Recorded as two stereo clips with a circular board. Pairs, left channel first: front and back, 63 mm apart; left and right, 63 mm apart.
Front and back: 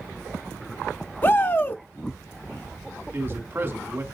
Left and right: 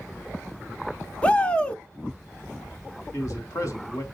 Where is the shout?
30° left, 1.1 m.